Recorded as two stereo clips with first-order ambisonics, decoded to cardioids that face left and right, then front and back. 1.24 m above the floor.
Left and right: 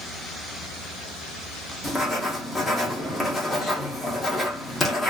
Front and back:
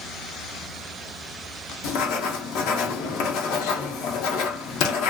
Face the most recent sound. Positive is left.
turn(degrees=15)